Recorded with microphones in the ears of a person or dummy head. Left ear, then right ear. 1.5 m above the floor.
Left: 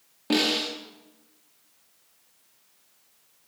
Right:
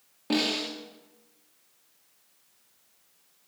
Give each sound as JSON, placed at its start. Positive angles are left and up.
{"t": 0.3, "sound": "a snare drum", "side_deg": 0, "distance_m": 2.0}